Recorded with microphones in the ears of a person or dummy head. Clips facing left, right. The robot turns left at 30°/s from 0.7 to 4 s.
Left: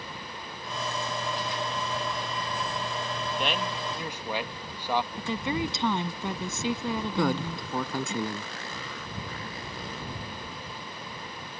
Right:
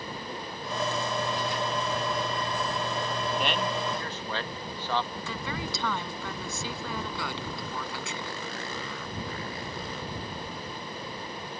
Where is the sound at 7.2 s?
45° left (ahead or behind).